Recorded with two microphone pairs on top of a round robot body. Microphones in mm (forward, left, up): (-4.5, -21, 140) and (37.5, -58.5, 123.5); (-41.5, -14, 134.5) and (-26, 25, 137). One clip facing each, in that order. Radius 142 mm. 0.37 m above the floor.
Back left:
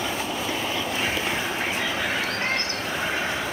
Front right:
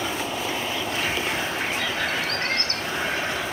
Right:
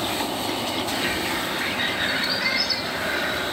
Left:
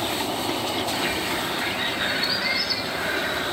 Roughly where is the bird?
Behind right.